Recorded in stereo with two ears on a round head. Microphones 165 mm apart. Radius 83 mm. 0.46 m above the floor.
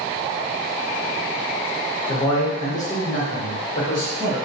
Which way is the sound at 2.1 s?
20° left (ahead or behind).